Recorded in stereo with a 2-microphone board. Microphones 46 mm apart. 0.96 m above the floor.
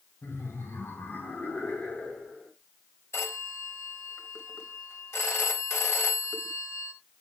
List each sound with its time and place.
0.2 s laughter: 65° left (ahead or behind), 3.5 m; by 2.5 s 25° left (ahead or behind), 4 m
3.1 s a phone ringing: 65° left (ahead or behind), 3.5 m